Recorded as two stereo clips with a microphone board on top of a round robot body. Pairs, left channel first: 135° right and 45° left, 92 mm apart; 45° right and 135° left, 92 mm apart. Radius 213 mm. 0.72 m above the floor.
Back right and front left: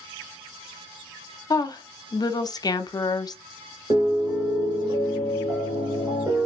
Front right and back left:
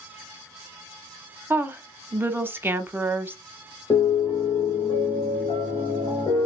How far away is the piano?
About 0.9 m.